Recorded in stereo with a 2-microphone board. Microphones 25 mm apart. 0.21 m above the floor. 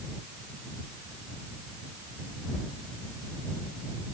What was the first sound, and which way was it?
Only background noise.